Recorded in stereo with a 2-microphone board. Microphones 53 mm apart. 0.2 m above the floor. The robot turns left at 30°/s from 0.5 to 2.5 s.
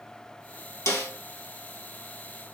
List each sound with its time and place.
0.9 s a snare drum: 60° left (ahead or behind), 1.6 m; by 1.1 s 50° left (ahead or behind), 1.6 m